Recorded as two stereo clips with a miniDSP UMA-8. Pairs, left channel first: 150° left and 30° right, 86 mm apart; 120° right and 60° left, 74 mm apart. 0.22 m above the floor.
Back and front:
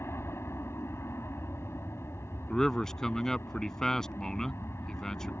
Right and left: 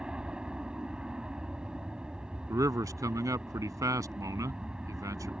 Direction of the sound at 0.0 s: 125° left.